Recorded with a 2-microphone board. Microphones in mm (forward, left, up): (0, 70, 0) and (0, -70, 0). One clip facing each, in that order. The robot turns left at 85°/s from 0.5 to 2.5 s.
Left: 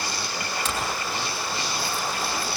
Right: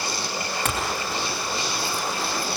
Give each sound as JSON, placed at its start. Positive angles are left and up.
{"t": 0.7, "sound": "a clink", "side_deg": -55, "distance_m": 4.0}